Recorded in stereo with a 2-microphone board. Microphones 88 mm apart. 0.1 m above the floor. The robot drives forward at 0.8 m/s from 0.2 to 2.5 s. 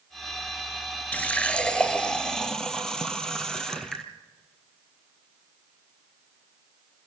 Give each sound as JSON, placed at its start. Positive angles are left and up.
{"t": 1.1, "sound": "a running tap", "side_deg": 15, "distance_m": 0.8}